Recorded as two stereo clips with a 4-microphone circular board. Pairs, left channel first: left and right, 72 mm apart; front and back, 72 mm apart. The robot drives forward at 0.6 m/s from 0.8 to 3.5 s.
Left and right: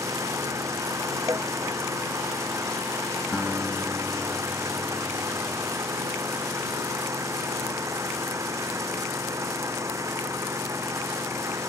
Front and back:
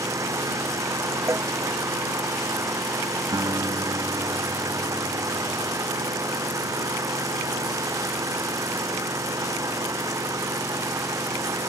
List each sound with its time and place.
0.0 s an engine running: 135° right
1.3 s a cowbell: 130° right
3.3 s a guitar: 165° left